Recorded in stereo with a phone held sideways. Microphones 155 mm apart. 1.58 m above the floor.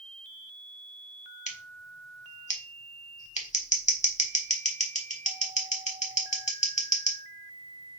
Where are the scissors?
50° left (ahead or behind), 1.1 m.